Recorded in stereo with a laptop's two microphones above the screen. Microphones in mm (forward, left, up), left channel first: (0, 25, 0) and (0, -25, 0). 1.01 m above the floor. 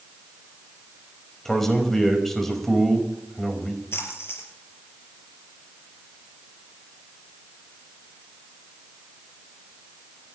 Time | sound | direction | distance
1.4 | a man speaking | 5° left (ahead or behind) | 4.5 m
3.9 | a splash | 60° left (ahead or behind) | 5.5 m